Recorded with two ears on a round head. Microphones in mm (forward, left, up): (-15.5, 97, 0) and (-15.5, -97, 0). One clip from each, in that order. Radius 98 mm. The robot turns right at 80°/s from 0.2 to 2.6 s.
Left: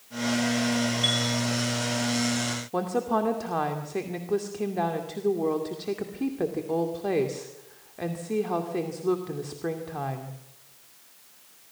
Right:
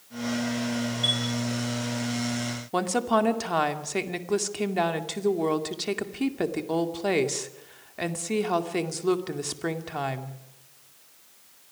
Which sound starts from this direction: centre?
A chime, at 1.0 s.